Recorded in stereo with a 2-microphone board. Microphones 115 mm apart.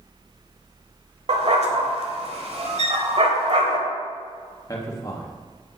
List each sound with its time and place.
1.3 s a dog barking: 60° right (ahead or behind), 1.2 m
2.8 s a violin: 70° right (ahead or behind), 1.5 m
4.7 s a man speaking: 30° left (ahead or behind), 1.3 m